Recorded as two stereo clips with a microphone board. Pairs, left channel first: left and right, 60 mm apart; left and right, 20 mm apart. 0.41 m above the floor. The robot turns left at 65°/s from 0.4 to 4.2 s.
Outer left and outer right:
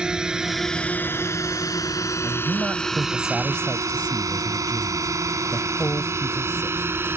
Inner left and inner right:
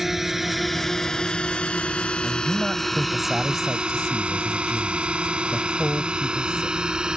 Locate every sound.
0.0 s a drone: 15° right (ahead or behind); by 7.2 s 40° right (ahead or behind)
2.2 s a man speaking: 105° right; by 6.8 s 125° left